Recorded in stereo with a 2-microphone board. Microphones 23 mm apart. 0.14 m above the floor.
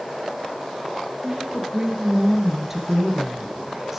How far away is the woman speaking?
About 2.5 m.